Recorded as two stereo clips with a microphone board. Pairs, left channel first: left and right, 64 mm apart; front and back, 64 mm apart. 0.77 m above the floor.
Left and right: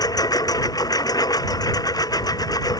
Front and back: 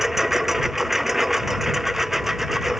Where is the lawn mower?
95° left.